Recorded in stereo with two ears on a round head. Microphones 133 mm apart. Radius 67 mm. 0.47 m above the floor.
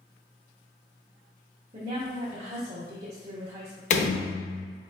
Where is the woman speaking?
45° right (ahead or behind), 0.9 m.